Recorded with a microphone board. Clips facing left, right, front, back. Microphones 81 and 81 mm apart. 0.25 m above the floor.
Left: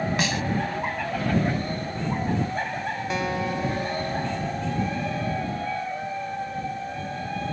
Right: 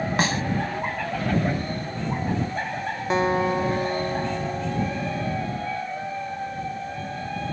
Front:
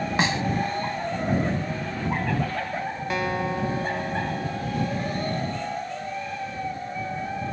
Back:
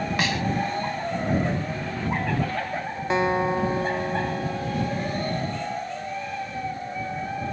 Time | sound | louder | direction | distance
0.2 | a snare drum | right 2 dB, front 4 dB | 55° right | ?
3.1 | a guitar | right 8 dB, back 5 dB | 125° right | ?